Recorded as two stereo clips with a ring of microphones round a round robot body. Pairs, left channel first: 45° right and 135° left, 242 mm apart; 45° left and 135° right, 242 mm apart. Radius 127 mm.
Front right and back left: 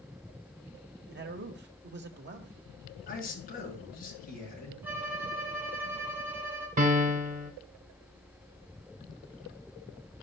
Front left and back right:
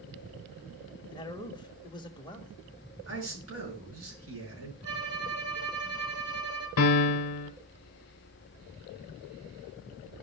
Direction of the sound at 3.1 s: 100° right.